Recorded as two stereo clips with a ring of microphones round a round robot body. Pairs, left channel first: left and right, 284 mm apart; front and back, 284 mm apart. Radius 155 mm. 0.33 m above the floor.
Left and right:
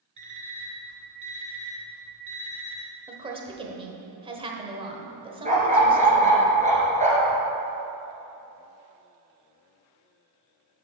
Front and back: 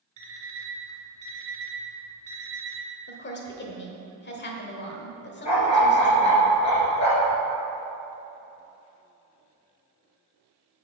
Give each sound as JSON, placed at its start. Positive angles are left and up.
{"t": 0.2, "sound": "an alarm clock", "azimuth_deg": -140, "distance_m": 2.0}
{"t": 3.1, "sound": "a woman speaking", "azimuth_deg": -25, "distance_m": 1.1}
{"t": 5.5, "sound": "a dog barking", "azimuth_deg": -25, "distance_m": 2.0}